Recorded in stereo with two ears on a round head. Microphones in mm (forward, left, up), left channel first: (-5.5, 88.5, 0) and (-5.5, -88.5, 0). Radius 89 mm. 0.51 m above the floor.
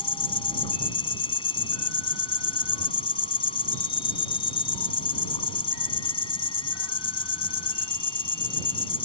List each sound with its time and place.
0.0 s an insect: 30° left (ahead or behind)